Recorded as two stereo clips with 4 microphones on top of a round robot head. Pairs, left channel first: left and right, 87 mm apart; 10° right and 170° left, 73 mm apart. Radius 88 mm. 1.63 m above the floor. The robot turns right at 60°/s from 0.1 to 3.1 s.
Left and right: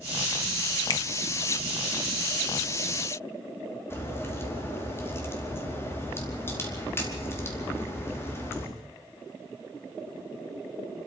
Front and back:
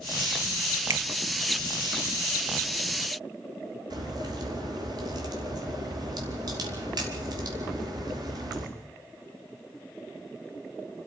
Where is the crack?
150° left, 4.5 m.